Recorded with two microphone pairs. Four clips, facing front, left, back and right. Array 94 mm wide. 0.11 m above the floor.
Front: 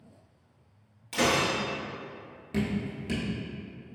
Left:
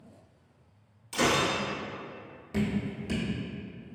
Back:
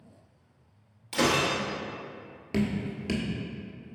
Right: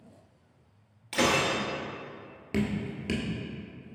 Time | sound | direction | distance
1.1 | breaking glass | 90° right | 0.9 m
2.5 | dripping | 125° right | 0.9 m